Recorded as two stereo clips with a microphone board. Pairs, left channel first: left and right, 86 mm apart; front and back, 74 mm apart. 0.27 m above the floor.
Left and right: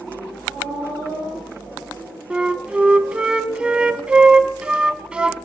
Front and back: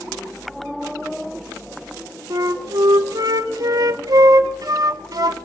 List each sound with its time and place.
2.3 s a flute: 165° right, 0.8 m